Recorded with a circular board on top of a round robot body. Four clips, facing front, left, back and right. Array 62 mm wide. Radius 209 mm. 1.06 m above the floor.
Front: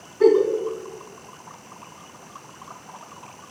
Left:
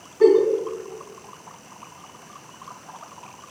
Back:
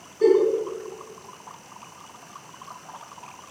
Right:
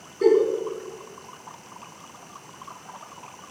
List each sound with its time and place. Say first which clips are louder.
0.2 s a giggle: left 3 dB, front 2 dB; 55° left, 1.7 m